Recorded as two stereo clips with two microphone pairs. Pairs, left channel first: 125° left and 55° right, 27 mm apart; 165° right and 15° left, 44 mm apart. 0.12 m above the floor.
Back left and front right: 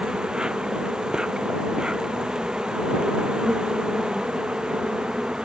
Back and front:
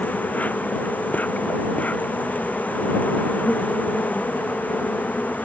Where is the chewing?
I don't hear chewing.